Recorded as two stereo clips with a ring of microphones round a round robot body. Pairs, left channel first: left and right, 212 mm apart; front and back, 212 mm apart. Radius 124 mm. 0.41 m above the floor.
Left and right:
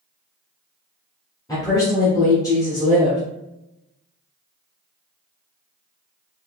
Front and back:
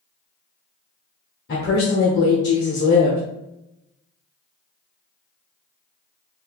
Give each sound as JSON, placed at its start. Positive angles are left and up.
{"t": 1.5, "sound": "a woman speaking", "azimuth_deg": 20, "distance_m": 1.3}